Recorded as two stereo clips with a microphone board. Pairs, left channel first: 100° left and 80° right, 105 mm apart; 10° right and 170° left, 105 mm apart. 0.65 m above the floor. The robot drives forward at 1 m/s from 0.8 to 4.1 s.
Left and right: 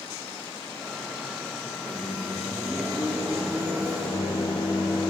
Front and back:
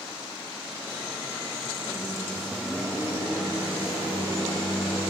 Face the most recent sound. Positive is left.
turn(degrees=-160)